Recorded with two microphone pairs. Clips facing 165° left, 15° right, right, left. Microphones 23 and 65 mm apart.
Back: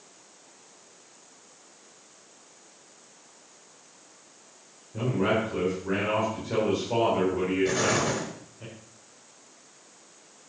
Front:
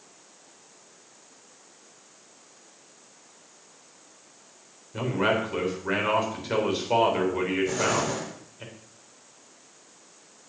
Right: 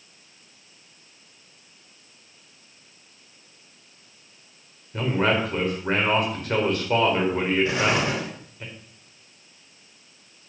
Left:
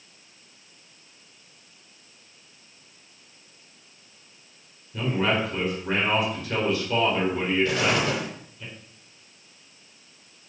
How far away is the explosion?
About 5 m.